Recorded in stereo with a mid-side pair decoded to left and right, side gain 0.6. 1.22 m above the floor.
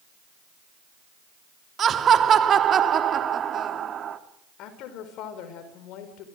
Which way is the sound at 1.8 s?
40° right.